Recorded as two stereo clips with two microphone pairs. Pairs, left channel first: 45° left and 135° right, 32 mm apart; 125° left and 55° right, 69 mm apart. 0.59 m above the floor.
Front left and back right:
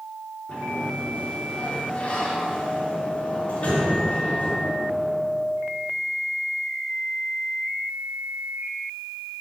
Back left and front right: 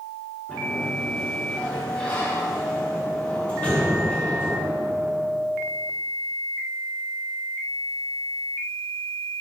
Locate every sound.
0.5 s a sliding door: 65° left, 1.6 m